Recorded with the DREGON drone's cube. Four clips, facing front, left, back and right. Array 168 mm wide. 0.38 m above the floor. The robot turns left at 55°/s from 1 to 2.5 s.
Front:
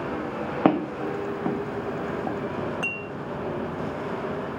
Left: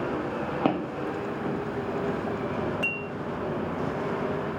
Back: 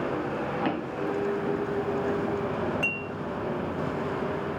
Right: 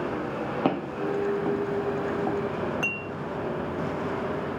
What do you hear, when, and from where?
0.7 s footsteps: straight ahead, 1.0 m; by 2.4 s 50° right, 1.7 m
2.8 s dishes clattering: 45° right, 0.6 m